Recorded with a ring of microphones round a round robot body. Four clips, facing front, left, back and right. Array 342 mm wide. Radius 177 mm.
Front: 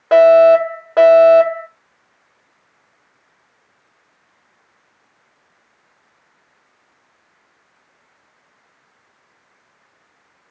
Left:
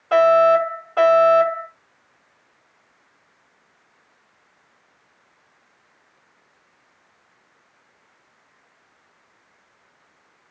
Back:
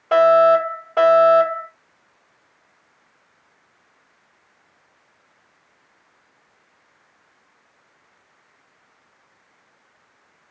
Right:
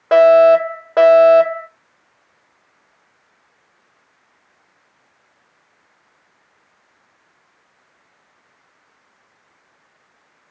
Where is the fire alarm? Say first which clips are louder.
Right 5 dB, front 5 dB; 50° right, 4.5 m.